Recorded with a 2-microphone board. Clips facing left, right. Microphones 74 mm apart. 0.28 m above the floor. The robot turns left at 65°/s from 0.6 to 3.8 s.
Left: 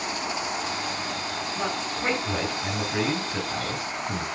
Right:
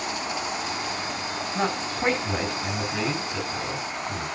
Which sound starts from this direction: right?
A man speaking, at 1.6 s.